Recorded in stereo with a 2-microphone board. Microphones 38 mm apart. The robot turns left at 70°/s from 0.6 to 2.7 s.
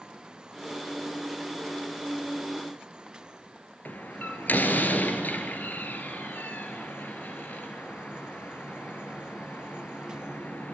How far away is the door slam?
About 2.5 m.